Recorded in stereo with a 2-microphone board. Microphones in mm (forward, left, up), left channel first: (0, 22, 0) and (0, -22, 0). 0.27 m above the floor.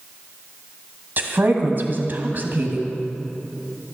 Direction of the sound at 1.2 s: 45° right (ahead or behind).